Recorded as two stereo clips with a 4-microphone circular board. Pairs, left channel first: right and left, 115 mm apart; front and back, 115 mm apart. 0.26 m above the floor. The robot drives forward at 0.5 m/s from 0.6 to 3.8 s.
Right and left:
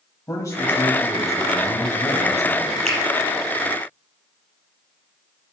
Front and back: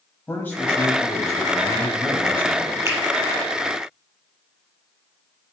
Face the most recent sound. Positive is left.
turn(degrees=120)